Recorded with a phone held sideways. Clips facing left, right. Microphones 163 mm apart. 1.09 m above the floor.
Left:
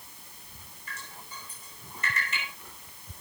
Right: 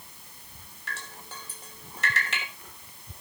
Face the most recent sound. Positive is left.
turn(degrees=-80)